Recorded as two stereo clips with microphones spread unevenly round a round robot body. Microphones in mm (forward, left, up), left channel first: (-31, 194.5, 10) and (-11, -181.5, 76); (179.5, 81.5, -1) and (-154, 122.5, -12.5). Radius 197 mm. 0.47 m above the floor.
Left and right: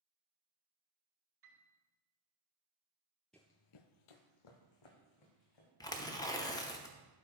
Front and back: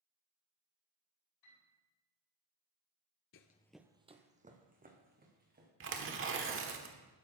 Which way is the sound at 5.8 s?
155° left.